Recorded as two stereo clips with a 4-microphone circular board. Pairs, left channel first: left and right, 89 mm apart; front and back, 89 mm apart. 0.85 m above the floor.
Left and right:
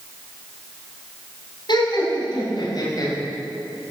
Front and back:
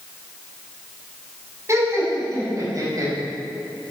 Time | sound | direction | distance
1.7 | laughter | 125° left | 6 m